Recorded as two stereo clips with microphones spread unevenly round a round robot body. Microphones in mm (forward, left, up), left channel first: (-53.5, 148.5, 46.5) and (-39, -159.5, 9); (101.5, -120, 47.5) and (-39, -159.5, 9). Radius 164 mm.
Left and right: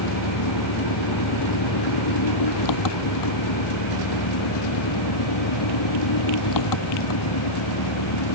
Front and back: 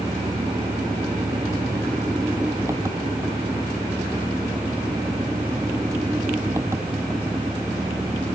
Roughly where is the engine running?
Behind left.